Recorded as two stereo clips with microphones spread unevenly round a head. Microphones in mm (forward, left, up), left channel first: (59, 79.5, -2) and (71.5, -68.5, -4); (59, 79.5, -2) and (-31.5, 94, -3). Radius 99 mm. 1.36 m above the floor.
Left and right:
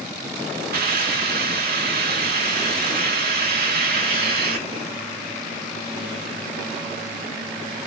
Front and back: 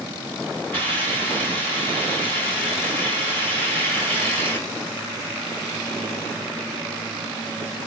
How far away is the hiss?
About 1.7 m.